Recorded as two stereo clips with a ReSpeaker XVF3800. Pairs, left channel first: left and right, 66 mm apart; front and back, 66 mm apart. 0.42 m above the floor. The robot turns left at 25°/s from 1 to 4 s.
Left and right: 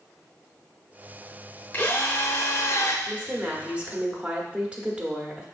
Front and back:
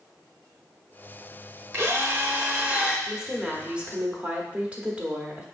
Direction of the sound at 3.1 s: 115° right.